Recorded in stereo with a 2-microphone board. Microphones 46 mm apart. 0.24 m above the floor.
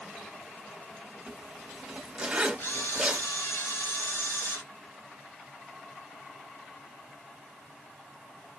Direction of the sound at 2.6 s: 70° left (ahead or behind).